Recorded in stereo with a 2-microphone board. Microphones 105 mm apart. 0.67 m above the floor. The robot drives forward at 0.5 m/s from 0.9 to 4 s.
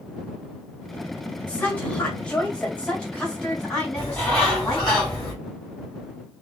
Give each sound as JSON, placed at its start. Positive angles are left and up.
{"t": 1.5, "sound": "a woman speaking", "side_deg": 10, "distance_m": 2.5}
{"t": 4.0, "sound": "a bird", "side_deg": 10, "distance_m": 3.0}